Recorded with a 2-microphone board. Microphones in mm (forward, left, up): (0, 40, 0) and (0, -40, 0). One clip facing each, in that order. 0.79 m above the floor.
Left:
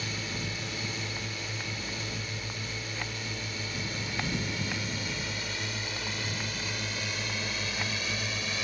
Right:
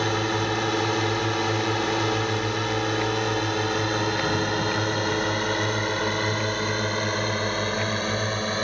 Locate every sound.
0.0 s a drone: 65° right (ahead or behind); by 8.6 s 45° right (ahead or behind)